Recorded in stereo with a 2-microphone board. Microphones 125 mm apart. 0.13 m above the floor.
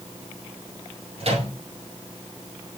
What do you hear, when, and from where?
1.2 s a microwave: 55° right (ahead or behind), 2 m